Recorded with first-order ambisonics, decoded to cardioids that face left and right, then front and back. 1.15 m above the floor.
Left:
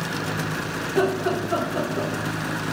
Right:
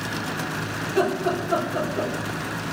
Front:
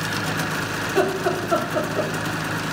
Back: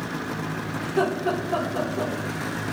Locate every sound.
0.8 s laughter: 10° right, 0.8 m